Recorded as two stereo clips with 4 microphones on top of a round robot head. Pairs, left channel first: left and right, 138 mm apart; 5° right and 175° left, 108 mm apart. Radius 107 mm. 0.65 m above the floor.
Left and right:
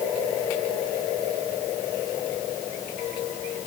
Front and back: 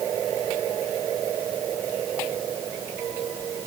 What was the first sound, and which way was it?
Only background noise.